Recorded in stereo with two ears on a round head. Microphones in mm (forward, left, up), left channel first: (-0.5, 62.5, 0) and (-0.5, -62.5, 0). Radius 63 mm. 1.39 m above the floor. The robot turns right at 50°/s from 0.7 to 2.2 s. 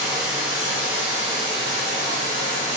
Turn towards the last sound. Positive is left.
turn(degrees=-100)